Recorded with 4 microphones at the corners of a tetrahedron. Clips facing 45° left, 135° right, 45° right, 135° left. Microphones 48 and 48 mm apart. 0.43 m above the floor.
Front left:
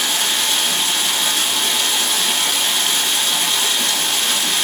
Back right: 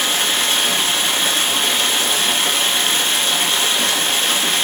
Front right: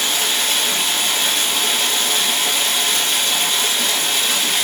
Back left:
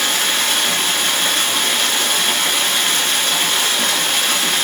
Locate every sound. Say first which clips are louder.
0.0 s running water: back right 2 dB, back left 2 dB; 170° left, 1.2 m